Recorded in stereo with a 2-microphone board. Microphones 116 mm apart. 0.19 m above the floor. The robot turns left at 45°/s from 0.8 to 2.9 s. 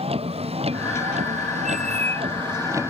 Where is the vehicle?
60° right (ahead or behind); by 2.9 s 20° right (ahead or behind).